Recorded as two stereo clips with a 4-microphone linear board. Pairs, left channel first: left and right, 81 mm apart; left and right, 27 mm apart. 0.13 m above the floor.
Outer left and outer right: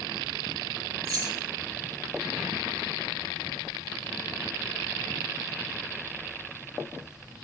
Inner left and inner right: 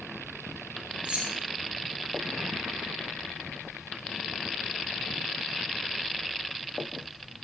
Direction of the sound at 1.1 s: 50° right (ahead or behind).